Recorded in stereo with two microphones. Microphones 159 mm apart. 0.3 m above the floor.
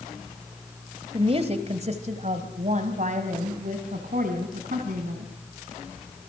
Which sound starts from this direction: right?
A woman speaking, at 1.1 s.